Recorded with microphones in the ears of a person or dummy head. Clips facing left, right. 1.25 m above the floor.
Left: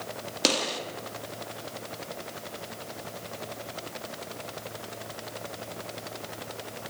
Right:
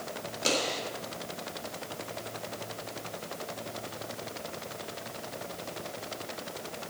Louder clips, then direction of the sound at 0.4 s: Left 2 dB; 80° left.